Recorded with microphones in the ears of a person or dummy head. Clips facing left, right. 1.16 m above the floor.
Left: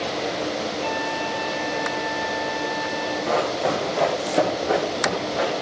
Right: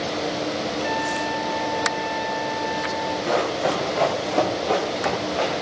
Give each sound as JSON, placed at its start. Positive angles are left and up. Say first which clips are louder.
{"t": 0.8, "sound": "a trumpet", "louder": "right 1 dB", "side_deg": 45, "distance_m": 4.5}
{"t": 3.3, "sound": "running footsteps", "louder": "even", "side_deg": -5, "distance_m": 2.5}